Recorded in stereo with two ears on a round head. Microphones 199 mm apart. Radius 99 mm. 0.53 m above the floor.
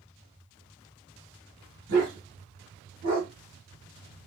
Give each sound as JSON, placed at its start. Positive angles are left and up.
{"t": 1.9, "sound": "a dog barking", "side_deg": -60, "distance_m": 1.8}